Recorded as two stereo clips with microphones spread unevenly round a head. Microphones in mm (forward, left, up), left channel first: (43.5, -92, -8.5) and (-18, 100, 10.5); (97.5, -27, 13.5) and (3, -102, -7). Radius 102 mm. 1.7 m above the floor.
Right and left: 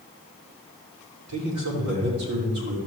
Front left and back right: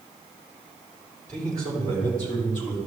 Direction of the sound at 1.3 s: 110° left.